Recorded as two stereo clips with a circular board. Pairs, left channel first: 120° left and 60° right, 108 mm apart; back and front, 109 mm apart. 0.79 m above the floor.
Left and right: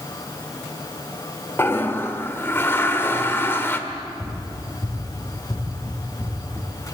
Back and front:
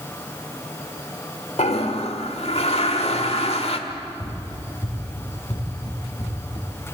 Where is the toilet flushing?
175° right, 1.5 m.